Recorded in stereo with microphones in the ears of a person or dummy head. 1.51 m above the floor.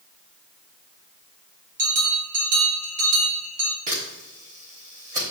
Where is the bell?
40° right (ahead or behind), 1.2 m.